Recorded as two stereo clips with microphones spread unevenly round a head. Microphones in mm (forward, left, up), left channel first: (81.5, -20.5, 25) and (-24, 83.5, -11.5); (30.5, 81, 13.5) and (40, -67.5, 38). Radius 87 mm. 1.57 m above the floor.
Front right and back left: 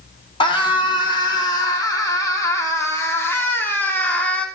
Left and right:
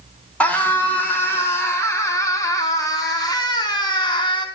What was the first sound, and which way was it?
A scream, 15° left.